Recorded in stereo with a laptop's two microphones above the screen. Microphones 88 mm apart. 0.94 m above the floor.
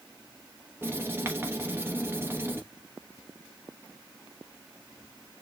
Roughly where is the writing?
Right.